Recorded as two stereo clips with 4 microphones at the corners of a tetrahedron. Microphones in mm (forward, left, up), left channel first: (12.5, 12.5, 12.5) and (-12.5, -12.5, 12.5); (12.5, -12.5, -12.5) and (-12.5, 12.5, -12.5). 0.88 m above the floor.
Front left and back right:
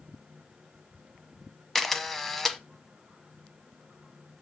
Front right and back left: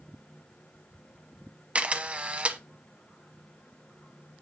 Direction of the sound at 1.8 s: 125° left.